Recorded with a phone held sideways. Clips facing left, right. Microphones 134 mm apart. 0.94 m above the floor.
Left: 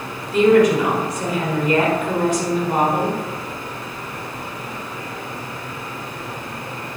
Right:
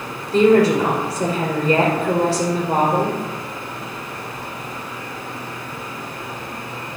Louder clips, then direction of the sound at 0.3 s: Even; 40° right (ahead or behind).